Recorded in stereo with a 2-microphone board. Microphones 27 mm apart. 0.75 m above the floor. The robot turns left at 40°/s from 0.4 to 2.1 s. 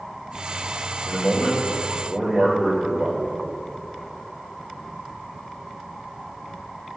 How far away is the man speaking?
About 3 m.